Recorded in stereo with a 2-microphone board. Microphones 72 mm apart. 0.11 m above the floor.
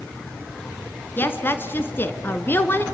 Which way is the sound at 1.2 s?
30° left (ahead or behind).